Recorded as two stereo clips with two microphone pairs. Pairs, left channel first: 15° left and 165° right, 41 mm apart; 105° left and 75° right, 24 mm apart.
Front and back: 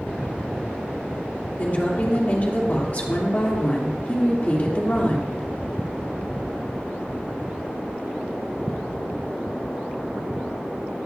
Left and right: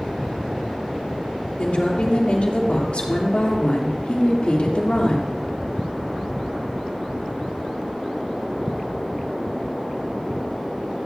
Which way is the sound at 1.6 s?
70° left.